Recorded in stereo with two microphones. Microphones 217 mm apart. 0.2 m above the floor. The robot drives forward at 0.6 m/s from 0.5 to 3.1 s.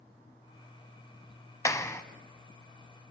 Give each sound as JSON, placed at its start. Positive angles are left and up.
{"t": 1.6, "sound": "a clap", "side_deg": 15, "distance_m": 1.0}